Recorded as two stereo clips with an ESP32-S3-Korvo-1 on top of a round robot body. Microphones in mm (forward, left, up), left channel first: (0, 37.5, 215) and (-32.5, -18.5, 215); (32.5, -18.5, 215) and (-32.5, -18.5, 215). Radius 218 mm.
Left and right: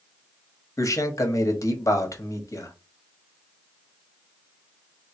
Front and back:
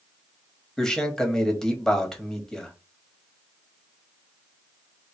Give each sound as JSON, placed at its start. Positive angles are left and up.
{"t": 0.8, "sound": "a man speaking", "azimuth_deg": 80, "distance_m": 1.3}